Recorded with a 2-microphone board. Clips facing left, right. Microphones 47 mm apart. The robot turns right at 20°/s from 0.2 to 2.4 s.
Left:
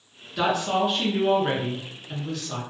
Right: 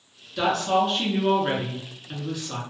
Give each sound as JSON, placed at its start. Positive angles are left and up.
{"t": 0.4, "sound": "a woman speaking", "azimuth_deg": 160, "distance_m": 1.3}